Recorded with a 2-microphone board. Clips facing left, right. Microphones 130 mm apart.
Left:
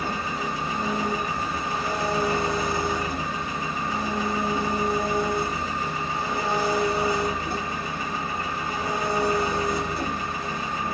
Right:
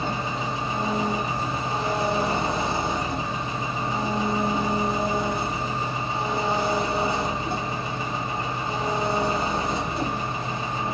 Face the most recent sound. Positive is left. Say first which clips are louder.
# right 1 dB
turn(degrees=-25)  # may be behind; listen again after turning